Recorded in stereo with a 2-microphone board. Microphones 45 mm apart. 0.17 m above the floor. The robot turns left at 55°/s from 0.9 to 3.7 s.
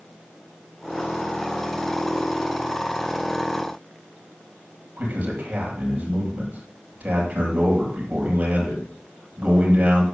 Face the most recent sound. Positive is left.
turn(degrees=-35)  # may be behind; listen again after turning